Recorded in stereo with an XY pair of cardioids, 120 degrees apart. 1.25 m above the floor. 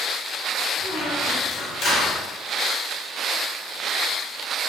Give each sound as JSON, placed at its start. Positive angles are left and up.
{"t": 0.8, "sound": "a squeak", "azimuth_deg": 55, "distance_m": 0.8}